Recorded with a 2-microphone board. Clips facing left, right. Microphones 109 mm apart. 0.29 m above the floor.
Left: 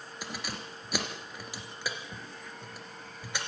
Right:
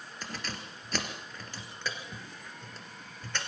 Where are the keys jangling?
10° left (ahead or behind), 3 m.